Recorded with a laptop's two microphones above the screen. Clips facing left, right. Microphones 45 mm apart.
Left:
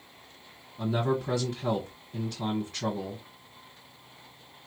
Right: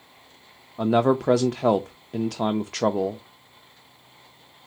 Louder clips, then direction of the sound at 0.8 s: Right 8 dB; 70° right (ahead or behind).